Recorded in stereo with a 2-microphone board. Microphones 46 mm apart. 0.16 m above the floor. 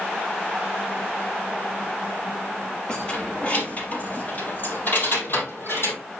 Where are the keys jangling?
15° left (ahead or behind), 3 m; by 6.0 s 50° left (ahead or behind), 4.5 m.